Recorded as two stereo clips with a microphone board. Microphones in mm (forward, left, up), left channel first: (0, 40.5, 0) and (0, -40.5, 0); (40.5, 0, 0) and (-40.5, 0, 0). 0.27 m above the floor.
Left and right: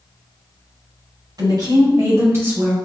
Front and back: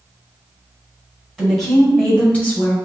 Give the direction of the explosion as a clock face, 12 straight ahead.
No explosion in this recording.